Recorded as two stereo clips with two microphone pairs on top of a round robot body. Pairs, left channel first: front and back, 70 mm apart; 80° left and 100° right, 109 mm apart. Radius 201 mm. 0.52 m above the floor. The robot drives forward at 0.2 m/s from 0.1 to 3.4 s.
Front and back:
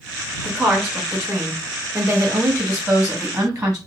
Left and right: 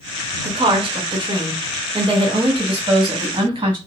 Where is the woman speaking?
115° right, 1.6 m; by 3.8 s 140° right, 1.9 m.